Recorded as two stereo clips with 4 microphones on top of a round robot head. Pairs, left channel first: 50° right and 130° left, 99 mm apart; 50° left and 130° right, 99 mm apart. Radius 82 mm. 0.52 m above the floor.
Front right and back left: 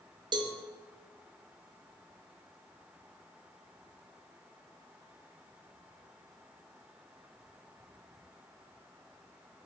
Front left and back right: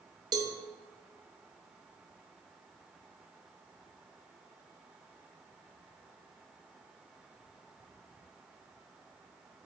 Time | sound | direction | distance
0.3 | a cowbell | 175° left | 0.9 m